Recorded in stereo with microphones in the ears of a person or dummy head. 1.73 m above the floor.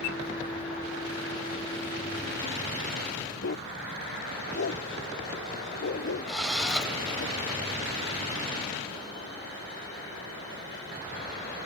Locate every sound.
3.4 s a dog barking: 50° left (ahead or behind); by 7.3 s 55° left (ahead or behind)
6.3 s a drill: centre (ahead or behind)